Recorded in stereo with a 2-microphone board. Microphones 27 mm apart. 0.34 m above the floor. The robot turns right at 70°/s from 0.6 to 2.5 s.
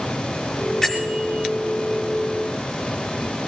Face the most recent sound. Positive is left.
turn(degrees=130)